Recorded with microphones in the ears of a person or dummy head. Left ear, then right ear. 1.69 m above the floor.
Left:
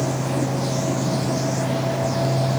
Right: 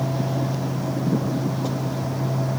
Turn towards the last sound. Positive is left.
No sound to turn to.